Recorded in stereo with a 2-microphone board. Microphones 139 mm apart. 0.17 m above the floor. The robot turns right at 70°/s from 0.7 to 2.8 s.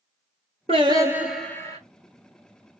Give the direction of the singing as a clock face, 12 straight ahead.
2 o'clock.